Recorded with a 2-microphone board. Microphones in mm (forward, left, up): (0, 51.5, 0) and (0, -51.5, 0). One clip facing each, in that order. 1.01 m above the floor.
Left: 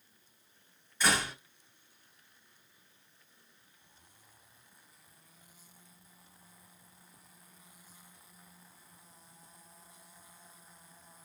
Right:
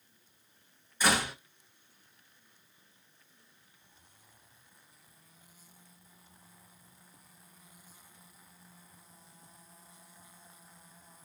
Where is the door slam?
10° right (ahead or behind), 3.5 m.